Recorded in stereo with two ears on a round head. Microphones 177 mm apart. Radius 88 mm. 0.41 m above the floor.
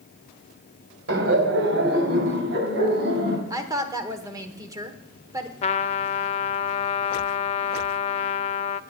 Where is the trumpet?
30° left (ahead or behind), 0.6 m.